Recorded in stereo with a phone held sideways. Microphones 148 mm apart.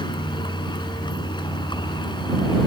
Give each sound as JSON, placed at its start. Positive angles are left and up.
{"t": 0.0, "sound": "a vehicle", "side_deg": 30}